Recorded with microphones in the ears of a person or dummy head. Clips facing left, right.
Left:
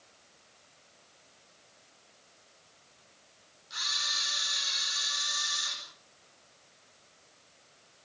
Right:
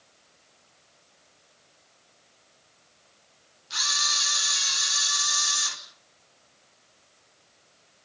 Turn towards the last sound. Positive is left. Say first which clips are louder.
# right 8 dB
turn(degrees=-65)  # may be behind; listen again after turning